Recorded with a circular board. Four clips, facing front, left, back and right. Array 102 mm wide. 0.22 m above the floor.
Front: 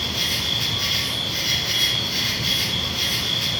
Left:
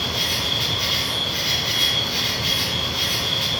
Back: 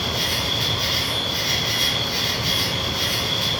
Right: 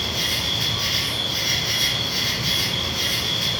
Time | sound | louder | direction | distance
0.0 | an insect | left 1 dB, back 4 dB | 90° left | 1.3 m